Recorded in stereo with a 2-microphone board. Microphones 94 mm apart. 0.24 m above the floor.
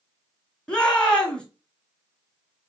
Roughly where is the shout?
Centre.